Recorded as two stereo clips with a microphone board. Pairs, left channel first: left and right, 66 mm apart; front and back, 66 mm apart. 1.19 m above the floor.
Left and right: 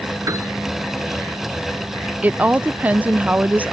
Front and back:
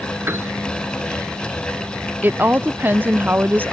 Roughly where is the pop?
I don't hear a pop.